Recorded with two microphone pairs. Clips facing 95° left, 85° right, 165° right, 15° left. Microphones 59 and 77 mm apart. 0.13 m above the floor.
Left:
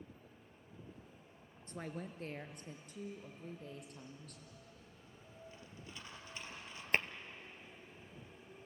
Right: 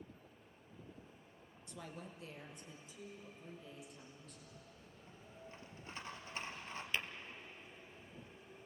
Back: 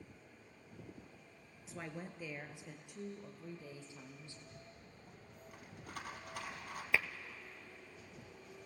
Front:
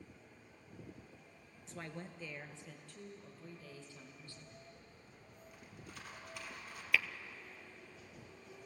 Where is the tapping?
130° left, 0.7 m.